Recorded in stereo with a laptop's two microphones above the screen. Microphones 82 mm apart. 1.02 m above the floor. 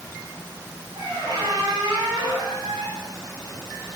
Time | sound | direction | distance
0.9 | a squeak | 60° right (ahead or behind) | 2.5 m